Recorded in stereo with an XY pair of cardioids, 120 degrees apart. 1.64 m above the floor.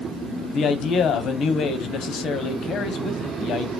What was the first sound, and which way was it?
A man speaking, 55° left.